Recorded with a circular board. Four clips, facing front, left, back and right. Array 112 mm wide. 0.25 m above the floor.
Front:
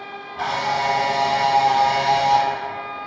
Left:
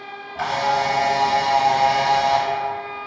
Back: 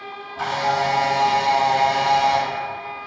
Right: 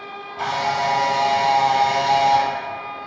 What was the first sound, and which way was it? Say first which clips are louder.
A camera shutter: left 1 dB, back 1 dB; 80° left.